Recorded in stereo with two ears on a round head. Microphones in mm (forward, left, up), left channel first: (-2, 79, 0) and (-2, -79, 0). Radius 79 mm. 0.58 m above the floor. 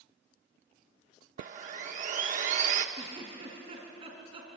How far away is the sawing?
About 1.1 m.